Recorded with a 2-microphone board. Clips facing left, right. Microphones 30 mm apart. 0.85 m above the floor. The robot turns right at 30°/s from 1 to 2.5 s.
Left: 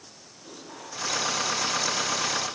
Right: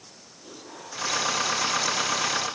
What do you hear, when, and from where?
Only background noise.